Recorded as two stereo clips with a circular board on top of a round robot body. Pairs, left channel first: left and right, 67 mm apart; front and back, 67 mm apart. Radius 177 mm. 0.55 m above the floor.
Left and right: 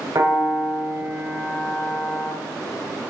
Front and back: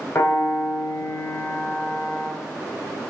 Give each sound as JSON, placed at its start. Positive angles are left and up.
{"t": 0.1, "sound": "a piano", "azimuth_deg": -50, "distance_m": 4.0}